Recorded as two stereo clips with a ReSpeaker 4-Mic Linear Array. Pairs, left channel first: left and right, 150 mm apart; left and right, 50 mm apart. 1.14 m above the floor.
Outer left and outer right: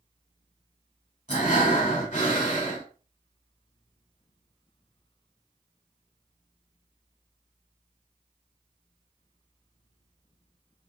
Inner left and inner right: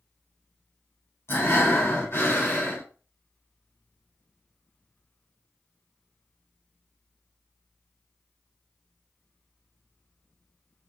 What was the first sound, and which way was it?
Breathing, 60° left (ahead or behind).